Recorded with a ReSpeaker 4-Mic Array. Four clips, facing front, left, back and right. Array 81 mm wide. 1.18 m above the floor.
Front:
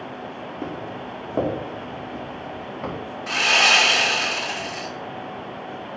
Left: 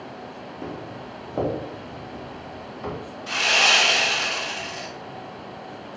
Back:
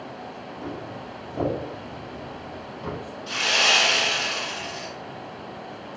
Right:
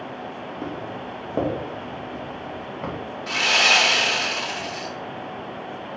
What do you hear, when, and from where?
0.6 s footsteps: 45° right, 3 m; by 2.9 s 55° right, 4 m
3.3 s sawing: 35° right, 2.5 m